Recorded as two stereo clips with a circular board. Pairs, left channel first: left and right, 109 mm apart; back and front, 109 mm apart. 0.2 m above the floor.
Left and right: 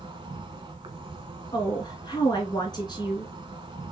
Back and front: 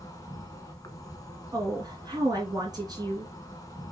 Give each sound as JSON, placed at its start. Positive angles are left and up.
{"t": 0.0, "sound": "an insect", "azimuth_deg": -125, "distance_m": 1.0}
{"t": 1.5, "sound": "a woman speaking", "azimuth_deg": 45, "distance_m": 1.9}